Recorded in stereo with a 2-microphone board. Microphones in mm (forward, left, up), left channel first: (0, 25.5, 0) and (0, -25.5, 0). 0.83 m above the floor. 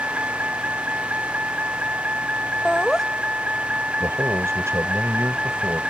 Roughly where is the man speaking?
Right.